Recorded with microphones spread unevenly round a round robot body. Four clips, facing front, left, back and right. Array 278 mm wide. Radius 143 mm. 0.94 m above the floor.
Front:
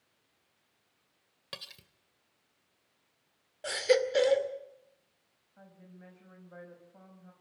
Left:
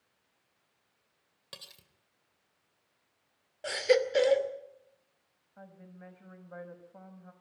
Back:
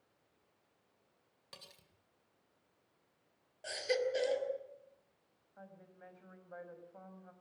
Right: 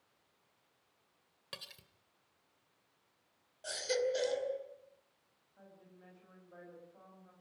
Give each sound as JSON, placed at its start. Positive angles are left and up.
{"t": 1.5, "sound": "cutlery clinking", "azimuth_deg": 0, "distance_m": 2.0}
{"t": 3.6, "sound": "a baby crying", "azimuth_deg": 45, "distance_m": 2.5}
{"t": 5.6, "sound": "a woman speaking", "azimuth_deg": 80, "distance_m": 6.0}